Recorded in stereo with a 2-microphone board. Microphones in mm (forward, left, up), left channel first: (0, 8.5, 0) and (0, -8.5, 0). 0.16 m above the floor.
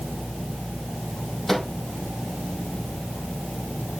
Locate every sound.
1.5 s a microwave: 25° left (ahead or behind), 4 m